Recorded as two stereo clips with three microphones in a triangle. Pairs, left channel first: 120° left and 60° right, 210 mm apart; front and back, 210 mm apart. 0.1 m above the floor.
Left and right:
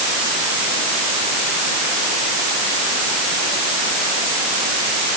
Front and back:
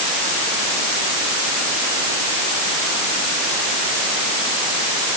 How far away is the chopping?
No chopping in this recording.